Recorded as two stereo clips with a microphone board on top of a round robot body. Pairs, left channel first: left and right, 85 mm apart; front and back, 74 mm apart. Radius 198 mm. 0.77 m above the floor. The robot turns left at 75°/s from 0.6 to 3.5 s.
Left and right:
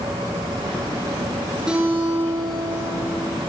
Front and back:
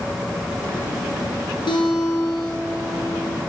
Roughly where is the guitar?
Ahead.